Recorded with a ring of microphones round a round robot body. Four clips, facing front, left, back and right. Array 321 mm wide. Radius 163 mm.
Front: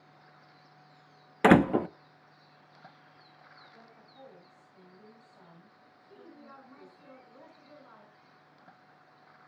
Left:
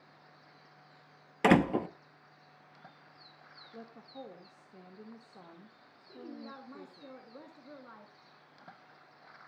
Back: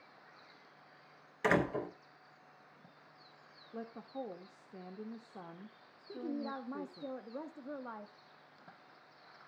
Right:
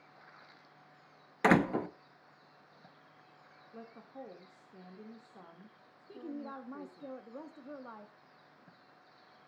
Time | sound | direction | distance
1.4 | a door slam | 10° left | 0.8 m
3.7 | a woman speaking | 175° left | 1.7 m
6.1 | a woman speaking | 160° right | 1.3 m